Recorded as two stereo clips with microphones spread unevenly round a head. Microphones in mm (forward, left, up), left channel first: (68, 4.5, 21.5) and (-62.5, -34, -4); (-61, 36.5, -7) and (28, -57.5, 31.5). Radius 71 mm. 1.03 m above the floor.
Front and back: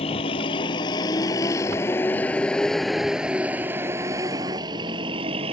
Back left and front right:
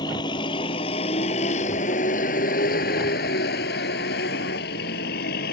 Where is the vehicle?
70° left; by 5.5 s 140° left.